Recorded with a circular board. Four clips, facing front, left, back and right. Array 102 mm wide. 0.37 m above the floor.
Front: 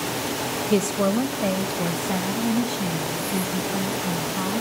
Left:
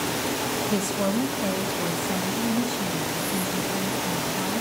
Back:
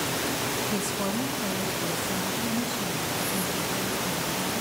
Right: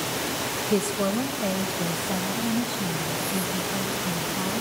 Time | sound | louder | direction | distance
0.7 | a woman speaking | right 3 dB, front 8 dB | 10° right | 1.6 m